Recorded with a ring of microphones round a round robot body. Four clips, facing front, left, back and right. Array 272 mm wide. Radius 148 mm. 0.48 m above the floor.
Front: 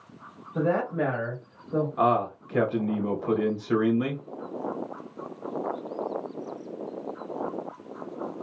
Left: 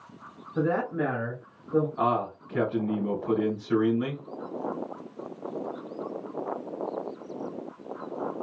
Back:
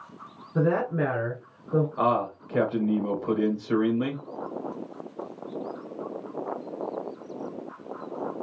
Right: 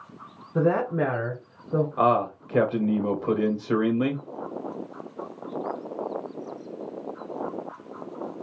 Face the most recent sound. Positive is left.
turn(degrees=-85)